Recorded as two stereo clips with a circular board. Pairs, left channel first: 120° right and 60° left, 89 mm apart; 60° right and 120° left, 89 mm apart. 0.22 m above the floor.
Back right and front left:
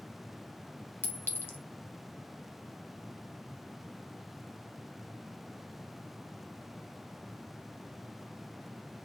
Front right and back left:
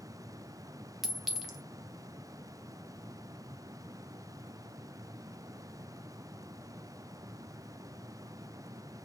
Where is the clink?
160° right, 0.7 m.